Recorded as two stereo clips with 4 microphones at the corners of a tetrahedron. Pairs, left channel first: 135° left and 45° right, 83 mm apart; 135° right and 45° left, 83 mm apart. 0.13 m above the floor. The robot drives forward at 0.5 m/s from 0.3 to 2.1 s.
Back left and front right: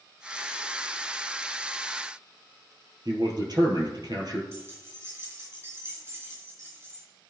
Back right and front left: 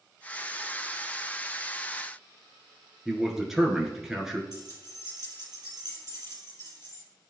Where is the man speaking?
40° right, 1.7 m.